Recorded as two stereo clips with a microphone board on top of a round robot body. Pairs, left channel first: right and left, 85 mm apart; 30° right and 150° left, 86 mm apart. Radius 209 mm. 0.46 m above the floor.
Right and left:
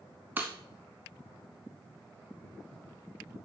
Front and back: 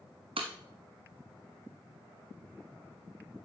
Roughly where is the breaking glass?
Behind.